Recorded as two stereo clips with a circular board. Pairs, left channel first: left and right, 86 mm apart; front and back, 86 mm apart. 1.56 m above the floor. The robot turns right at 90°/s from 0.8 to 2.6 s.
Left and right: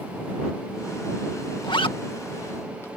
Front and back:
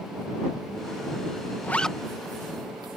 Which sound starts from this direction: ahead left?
A zipper, at 1.6 s.